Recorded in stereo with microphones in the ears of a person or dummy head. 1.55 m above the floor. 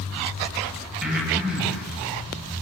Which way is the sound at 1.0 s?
5° right (ahead or behind).